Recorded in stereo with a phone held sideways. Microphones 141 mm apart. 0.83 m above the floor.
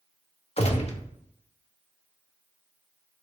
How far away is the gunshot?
About 1.4 m.